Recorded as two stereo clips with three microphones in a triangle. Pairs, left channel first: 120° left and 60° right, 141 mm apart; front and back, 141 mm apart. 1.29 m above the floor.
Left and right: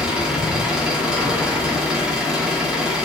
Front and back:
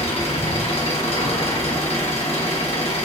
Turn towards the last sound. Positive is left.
turn(degrees=25)